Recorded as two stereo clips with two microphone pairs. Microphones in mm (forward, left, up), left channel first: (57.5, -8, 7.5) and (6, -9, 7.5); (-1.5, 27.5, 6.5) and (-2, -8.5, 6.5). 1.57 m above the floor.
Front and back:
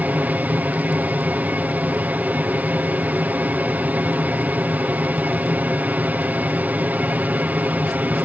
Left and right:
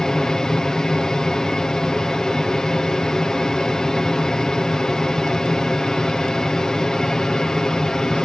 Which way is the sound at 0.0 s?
150° left.